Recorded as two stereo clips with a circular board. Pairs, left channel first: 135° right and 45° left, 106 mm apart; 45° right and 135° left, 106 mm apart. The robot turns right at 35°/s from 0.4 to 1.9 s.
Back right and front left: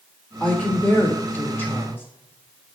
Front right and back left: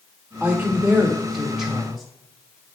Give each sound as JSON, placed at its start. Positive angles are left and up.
{"t": 0.4, "sound": "a woman speaking", "azimuth_deg": 175, "distance_m": 1.4}